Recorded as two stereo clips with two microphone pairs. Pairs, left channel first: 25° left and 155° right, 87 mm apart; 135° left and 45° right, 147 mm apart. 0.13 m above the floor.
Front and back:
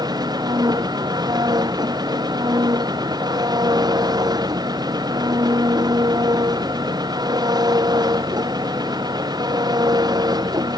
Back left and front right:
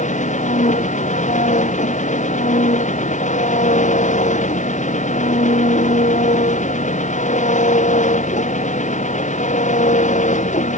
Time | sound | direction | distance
0.0 | an engine running | 165° left | ?